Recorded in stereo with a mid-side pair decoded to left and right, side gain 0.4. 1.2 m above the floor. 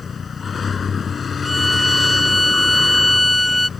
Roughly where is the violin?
Ahead.